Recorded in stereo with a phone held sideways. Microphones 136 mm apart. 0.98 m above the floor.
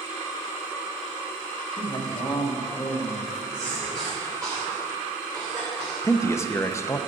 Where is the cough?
30° right (ahead or behind), 3 m.